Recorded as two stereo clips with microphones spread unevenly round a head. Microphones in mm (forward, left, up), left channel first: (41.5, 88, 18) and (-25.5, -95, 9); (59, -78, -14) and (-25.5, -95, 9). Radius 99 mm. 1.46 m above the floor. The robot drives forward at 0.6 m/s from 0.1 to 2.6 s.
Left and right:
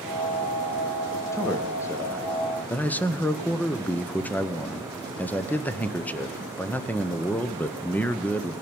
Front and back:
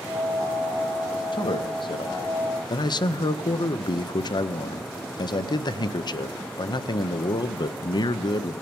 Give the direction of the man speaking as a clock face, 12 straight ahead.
12 o'clock.